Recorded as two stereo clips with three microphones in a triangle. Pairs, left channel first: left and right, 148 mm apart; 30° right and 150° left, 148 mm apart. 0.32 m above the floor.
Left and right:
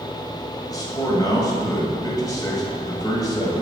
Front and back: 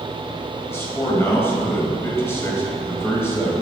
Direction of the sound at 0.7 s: 35° left.